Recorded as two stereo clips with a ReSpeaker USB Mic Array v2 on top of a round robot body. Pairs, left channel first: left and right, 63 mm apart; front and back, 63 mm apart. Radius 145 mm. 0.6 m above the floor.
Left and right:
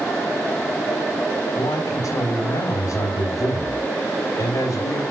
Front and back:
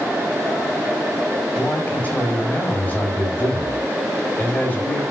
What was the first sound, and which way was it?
A man speaking, 70° left.